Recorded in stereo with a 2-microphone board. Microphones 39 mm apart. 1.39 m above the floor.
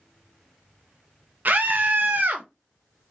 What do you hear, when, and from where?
1.4 s a scream: 50° right (ahead or behind), 0.5 m